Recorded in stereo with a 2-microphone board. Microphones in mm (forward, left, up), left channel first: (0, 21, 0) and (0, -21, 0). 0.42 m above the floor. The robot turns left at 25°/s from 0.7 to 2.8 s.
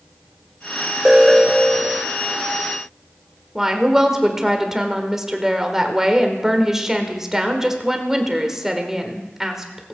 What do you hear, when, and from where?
1.1 s an alarm: 15° right (ahead or behind), 0.9 m; by 2.1 s 10° left (ahead or behind), 0.9 m
3.5 s a woman speaking: 10° right (ahead or behind), 1.3 m